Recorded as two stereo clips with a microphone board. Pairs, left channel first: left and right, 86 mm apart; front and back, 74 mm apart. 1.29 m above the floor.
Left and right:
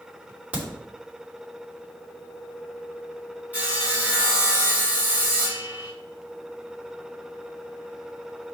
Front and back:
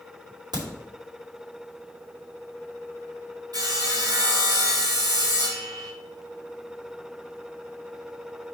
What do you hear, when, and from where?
0.5 s a crack: 165° right, 3.5 m
3.5 s sawing: 160° right, 2.5 m